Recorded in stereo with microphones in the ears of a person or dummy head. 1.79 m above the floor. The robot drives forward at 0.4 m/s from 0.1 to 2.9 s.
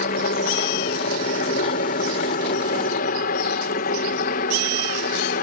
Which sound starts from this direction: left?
A helicopter, at 0.0 s.